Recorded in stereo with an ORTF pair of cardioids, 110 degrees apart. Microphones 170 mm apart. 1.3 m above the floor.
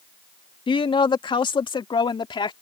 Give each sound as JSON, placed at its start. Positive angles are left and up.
{"t": 0.7, "sound": "a woman speaking", "azimuth_deg": 30}